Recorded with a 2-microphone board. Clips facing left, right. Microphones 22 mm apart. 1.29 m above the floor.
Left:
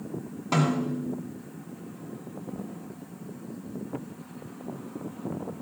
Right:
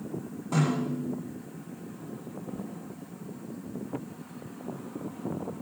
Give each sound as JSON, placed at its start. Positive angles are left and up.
{"t": 0.5, "sound": "a snare drum", "side_deg": 65, "distance_m": 7.0}